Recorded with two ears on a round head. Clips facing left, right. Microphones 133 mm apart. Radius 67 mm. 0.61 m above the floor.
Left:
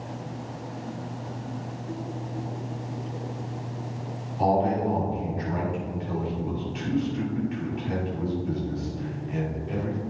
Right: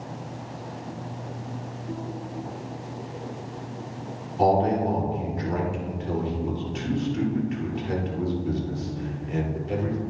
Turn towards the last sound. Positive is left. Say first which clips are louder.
# right 2 dB
turn(degrees=-55)  # may be behind; listen again after turning